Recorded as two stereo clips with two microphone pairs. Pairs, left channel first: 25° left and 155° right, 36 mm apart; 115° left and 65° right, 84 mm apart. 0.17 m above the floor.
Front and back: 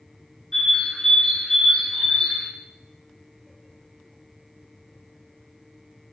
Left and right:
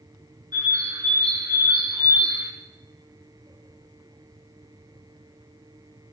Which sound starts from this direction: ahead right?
A bird, at 0.5 s.